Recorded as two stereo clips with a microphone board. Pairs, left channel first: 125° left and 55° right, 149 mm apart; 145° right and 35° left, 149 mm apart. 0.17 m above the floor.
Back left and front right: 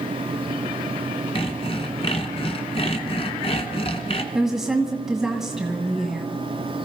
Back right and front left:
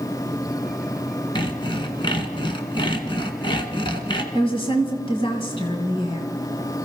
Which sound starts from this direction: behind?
Sawing, at 1.4 s.